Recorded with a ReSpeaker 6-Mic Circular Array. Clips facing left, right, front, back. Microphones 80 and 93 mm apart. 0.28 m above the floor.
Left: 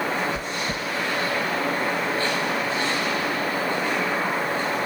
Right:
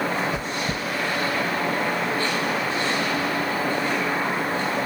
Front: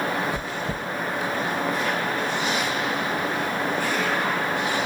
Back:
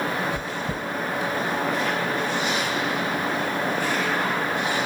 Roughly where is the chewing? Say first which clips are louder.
Right 1 dB, even; right.